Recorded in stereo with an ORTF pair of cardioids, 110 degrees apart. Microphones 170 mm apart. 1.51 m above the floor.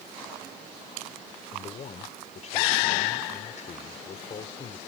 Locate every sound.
1.5 s a man speaking: 45° left